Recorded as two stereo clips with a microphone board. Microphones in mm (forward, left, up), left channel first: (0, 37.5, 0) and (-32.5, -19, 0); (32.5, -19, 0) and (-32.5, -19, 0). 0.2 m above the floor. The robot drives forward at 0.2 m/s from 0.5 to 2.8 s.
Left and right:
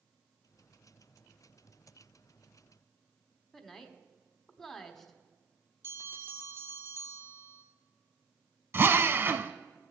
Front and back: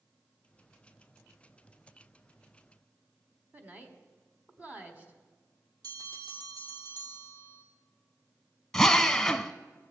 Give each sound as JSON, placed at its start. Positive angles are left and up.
{"t": 3.5, "sound": "a woman speaking", "azimuth_deg": 140, "distance_m": 1.3}
{"t": 5.8, "sound": "a bell", "azimuth_deg": -165, "distance_m": 1.8}
{"t": 8.7, "sound": "a drill", "azimuth_deg": -80, "distance_m": 0.6}